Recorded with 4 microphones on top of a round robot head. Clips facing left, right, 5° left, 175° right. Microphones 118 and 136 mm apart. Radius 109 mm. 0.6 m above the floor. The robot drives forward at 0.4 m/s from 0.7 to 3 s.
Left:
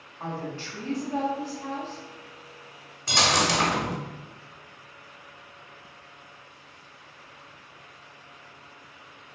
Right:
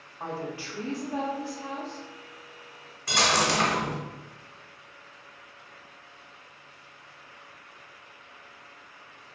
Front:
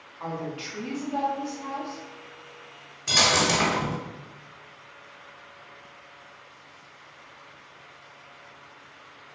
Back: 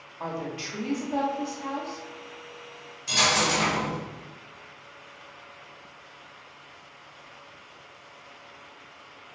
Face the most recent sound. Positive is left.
turn(degrees=25)